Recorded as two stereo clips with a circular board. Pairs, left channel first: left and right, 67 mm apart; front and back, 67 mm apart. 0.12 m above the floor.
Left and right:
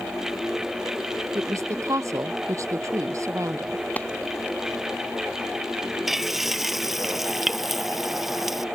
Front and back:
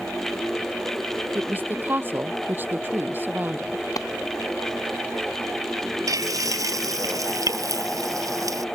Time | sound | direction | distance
1.4 | a woman speaking | 125° right | ?
4.0 | a clap | 25° left | ?
6.1 | frying | 175° right | ?